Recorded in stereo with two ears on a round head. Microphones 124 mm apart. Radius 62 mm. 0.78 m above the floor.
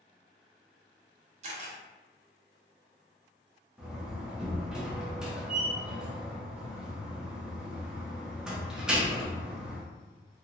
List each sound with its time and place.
1.4 s a camera shutter: 50° right (ahead or behind), 0.7 m
3.8 s a door slam: 5° right (ahead or behind), 0.5 m